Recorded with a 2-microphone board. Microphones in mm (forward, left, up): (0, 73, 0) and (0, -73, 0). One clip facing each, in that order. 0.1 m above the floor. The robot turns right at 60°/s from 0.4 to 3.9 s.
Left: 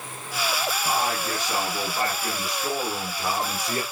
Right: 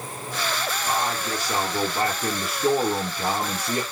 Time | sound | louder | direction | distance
0.8 | a man speaking | right 1 dB | 160° left | 1.8 m